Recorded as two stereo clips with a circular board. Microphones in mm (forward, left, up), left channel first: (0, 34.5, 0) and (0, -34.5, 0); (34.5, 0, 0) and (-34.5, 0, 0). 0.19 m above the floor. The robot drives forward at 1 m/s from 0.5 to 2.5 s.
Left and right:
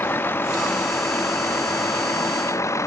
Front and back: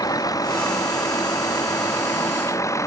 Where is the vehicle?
30° left; by 2.9 s 45° left.